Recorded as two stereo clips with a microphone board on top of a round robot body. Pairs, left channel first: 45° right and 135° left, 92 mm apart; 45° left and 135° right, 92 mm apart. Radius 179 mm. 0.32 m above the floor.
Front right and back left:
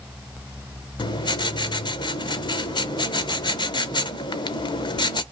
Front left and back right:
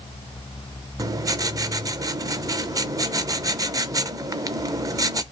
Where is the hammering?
No hammering in this recording.